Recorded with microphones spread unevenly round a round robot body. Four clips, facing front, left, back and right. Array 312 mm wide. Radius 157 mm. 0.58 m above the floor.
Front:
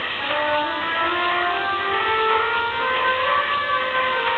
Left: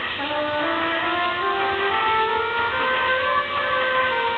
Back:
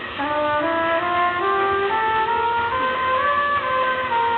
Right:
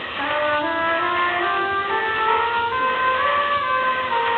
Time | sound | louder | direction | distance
0.2 | a trumpet | right 3 dB, back 2 dB | straight behind | 4 m